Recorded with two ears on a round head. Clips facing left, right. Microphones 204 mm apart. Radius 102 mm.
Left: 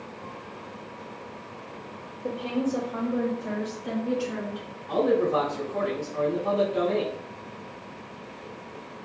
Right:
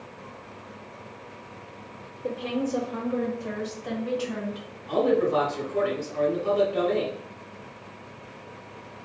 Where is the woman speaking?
10° right (ahead or behind), 0.8 m; by 4.7 s 55° right (ahead or behind), 1.9 m.